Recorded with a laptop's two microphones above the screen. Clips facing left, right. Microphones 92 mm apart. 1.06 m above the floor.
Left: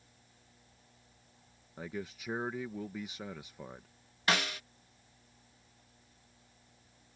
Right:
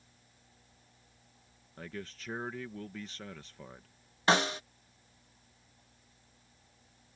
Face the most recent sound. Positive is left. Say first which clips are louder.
# right 5 dB
turn(degrees=-30)  # may be behind; listen again after turning